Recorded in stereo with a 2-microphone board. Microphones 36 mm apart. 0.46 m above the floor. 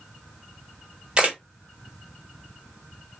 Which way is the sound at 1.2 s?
25° right (ahead or behind).